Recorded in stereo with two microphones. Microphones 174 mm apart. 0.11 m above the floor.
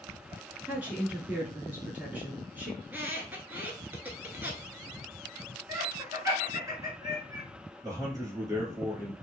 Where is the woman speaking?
10° right (ahead or behind), 1.1 m.